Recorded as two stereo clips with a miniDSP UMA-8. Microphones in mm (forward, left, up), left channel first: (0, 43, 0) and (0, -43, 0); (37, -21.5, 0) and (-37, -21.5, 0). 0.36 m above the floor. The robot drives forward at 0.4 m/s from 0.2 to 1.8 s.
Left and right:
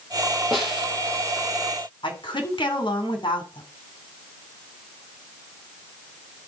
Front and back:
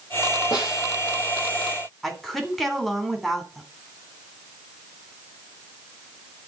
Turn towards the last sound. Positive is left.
turn(degrees=85)